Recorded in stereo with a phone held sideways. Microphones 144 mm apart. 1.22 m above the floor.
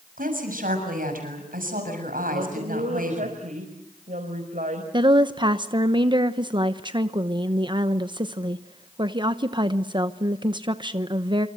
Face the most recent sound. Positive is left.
turn(degrees=-35)  # may be behind; listen again after turning